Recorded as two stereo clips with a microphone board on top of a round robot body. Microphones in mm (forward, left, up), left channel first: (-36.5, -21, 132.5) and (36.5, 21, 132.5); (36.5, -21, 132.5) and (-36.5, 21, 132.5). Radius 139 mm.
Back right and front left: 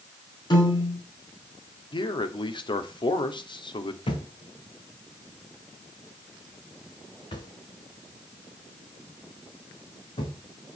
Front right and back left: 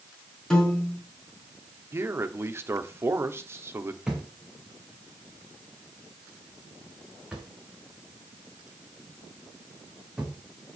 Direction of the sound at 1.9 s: 155° right.